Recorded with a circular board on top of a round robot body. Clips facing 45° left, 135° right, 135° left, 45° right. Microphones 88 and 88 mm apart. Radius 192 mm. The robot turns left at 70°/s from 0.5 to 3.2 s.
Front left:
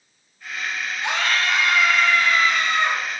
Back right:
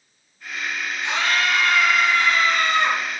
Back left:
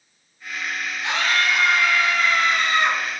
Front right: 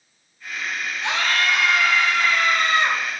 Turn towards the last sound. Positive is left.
turn(degrees=-135)